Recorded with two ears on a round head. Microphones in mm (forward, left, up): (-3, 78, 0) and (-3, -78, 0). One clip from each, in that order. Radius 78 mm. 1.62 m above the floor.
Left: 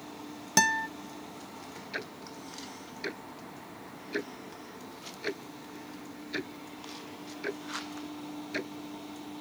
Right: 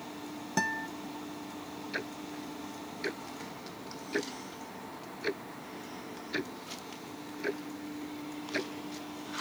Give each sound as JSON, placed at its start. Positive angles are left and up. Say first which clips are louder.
{"t": 0.6, "sound": "a guitar", "louder": "left 7 dB", "side_deg": 85}
{"t": 1.9, "sound": "ticking", "louder": "right 1 dB", "side_deg": 5}